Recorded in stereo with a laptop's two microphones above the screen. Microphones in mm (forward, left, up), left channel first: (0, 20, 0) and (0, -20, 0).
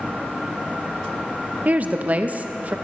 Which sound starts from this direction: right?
A woman speaking, at 1.6 s.